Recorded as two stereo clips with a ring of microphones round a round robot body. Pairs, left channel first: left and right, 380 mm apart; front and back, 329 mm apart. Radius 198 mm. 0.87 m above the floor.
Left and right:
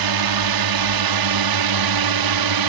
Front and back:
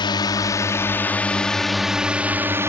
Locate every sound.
0.0 s a drone: 75° right; by 2.7 s 100° right